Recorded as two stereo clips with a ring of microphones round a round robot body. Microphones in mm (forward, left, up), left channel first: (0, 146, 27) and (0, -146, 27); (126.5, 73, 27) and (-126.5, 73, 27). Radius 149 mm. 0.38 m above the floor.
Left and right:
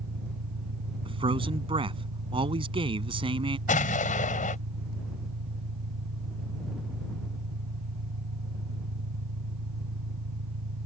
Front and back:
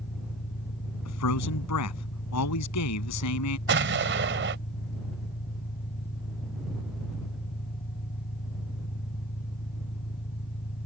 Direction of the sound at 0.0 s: 55° right.